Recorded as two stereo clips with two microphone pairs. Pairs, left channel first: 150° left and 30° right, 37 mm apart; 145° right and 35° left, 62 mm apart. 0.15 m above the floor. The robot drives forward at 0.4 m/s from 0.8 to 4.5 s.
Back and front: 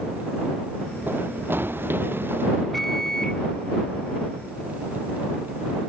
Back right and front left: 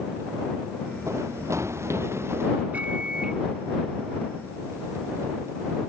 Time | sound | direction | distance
1.1 | running footsteps | 5° right | ?
2.7 | a microwave | 70° left | ?